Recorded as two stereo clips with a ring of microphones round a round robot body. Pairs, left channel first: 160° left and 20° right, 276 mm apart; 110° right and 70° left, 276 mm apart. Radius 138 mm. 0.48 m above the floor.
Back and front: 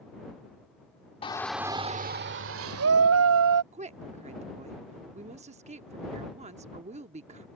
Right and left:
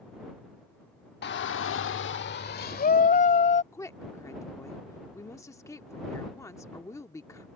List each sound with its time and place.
1.2 s a shout: 140° right; by 3.6 s 50° right
3.7 s a woman speaking: 45° right